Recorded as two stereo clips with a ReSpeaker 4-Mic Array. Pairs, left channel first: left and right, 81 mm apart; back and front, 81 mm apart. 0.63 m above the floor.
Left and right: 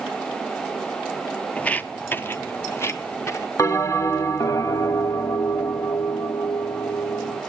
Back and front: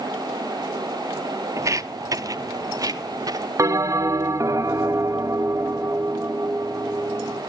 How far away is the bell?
About 0.9 m.